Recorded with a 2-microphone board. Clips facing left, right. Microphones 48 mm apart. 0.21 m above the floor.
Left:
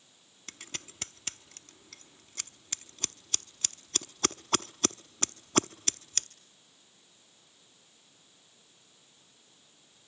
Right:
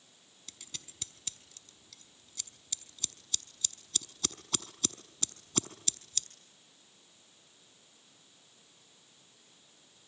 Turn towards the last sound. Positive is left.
turn(degrees=55)  # may be behind; listen again after turning